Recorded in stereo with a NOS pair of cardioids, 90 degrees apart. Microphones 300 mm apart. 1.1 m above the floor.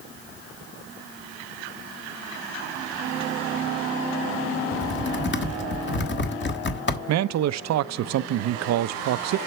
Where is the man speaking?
60° right, 0.6 m.